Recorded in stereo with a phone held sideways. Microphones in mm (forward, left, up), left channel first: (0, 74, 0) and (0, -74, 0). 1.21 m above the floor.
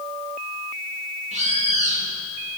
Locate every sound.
1.3 s a bird: 50° right (ahead or behind), 2 m